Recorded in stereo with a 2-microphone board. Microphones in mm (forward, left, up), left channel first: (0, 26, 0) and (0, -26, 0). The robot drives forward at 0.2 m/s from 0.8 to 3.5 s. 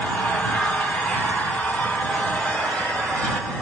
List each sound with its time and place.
0.0 s an engine running: 25° left (ahead or behind), 1.5 m; by 3.6 s 20° left (ahead or behind), 2.0 m